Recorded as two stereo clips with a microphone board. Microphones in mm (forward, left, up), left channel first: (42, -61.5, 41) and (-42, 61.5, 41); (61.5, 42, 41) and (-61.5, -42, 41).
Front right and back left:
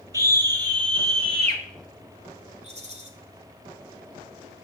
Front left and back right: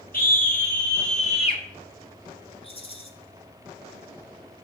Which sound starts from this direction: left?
A rattle, at 2.6 s.